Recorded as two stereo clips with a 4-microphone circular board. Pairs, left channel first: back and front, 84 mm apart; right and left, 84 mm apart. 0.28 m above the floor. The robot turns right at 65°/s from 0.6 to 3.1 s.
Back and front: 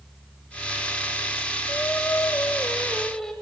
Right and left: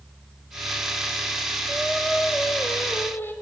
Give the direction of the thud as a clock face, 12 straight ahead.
No thud in this recording.